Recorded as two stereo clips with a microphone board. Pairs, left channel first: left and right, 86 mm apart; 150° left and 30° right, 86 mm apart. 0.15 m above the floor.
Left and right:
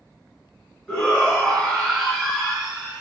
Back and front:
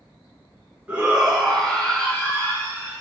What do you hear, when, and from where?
0.9 s a shout: 25° left, 1.1 m; by 3.0 s 175° right, 1.3 m